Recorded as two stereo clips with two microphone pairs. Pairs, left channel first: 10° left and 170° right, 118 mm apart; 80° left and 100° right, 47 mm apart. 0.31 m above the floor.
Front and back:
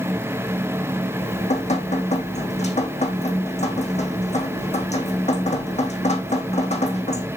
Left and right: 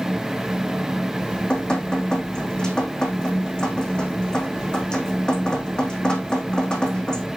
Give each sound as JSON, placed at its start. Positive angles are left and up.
{"t": 1.2, "sound": "dripping", "azimuth_deg": 5, "distance_m": 3.5}